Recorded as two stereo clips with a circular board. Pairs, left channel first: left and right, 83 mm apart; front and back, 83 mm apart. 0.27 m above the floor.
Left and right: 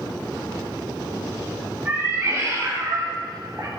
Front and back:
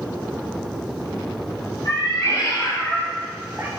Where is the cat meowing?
25° right, 1.0 m; by 3.7 s 125° right, 0.6 m.